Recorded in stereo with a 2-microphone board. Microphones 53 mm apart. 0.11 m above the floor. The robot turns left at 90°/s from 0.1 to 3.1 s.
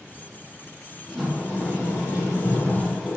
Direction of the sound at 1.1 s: 175° right.